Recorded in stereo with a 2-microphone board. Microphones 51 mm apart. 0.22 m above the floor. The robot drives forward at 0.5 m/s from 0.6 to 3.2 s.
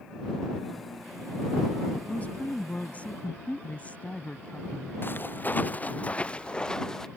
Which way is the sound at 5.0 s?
45° left (ahead or behind).